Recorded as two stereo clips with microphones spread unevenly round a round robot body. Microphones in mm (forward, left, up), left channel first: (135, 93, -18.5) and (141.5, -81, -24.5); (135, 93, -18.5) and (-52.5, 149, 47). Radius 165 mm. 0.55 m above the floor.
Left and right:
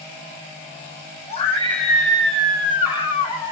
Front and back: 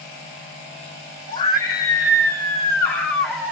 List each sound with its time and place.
1.3 s a scream: 35° left, 2 m; by 3.5 s 50° left, 1.2 m